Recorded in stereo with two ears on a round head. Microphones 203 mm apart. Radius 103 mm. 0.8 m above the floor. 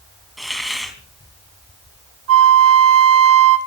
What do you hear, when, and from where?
0.4 s a hiss: centre (ahead or behind), 3 m
2.3 s a flute: 65° right (ahead or behind), 1.9 m